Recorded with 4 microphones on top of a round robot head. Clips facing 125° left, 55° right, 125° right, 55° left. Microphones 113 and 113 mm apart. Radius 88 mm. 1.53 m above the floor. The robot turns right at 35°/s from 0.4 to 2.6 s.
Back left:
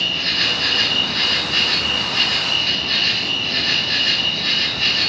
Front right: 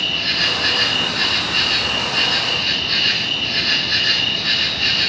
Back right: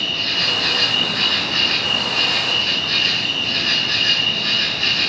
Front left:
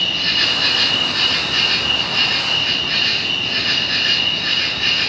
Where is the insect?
90° left, 0.7 m; by 5.1 s 170° left, 0.7 m.